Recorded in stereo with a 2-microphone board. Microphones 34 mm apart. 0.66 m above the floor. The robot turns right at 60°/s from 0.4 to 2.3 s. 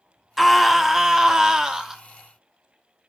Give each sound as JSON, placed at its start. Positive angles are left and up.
{"t": 0.4, "sound": "a scream", "side_deg": -5, "distance_m": 0.7}